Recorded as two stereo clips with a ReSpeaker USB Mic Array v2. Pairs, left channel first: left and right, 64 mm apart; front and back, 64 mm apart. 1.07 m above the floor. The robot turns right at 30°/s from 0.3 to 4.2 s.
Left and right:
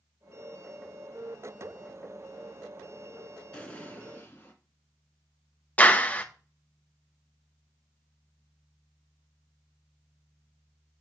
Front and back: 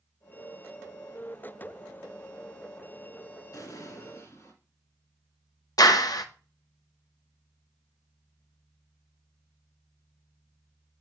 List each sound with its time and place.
3.5 s an explosion: 15° left, 2.5 m; by 4.5 s 35° left, 2.5 m
5.8 s a clap: 25° left, 0.8 m